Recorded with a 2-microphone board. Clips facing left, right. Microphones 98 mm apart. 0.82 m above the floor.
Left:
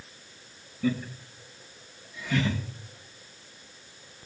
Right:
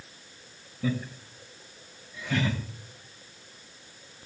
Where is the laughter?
20° right (ahead or behind), 3 m; by 2.6 s 35° right (ahead or behind), 4 m.